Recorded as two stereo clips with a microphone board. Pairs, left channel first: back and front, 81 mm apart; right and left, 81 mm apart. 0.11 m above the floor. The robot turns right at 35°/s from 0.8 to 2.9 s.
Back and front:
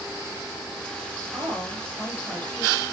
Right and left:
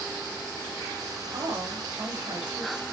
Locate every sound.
1.3 s a woman speaking: 65° left, 6.5 m; by 2.8 s 120° left, 6.5 m